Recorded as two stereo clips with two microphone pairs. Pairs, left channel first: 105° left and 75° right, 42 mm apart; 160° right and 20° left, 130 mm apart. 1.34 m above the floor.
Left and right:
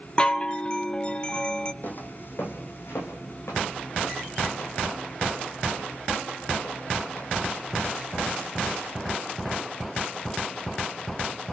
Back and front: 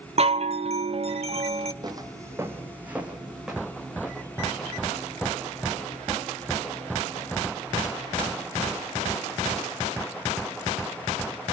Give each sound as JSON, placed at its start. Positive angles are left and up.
{"t": 0.2, "sound": "a chime", "azimuth_deg": 45, "distance_m": 0.8}
{"t": 1.8, "sound": "footsteps", "azimuth_deg": 75, "distance_m": 2.5}